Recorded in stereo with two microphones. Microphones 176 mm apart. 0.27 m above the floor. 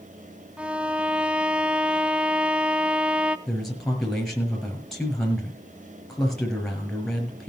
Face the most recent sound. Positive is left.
turn(degrees=0)  # may be behind; listen again after turning